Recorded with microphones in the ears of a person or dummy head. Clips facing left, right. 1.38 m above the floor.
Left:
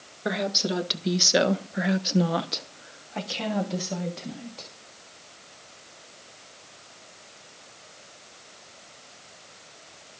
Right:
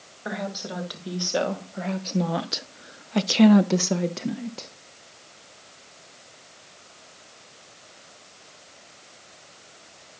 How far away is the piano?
I don't hear a piano.